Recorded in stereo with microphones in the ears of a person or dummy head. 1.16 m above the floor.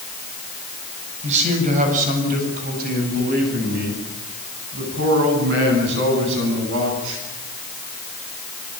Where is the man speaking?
40° right (ahead or behind), 8 m; by 7.2 s 75° right (ahead or behind), 14.5 m.